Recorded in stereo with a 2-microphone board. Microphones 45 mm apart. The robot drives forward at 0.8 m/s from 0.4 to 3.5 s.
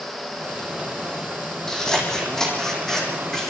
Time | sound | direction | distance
1.7 | scissors | 15° left (ahead or behind) | 6 m